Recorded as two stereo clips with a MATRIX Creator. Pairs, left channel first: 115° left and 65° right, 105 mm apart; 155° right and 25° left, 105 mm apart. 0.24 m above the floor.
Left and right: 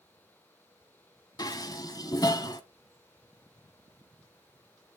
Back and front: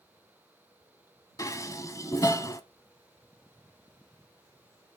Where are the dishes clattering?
150° left, 1.1 m.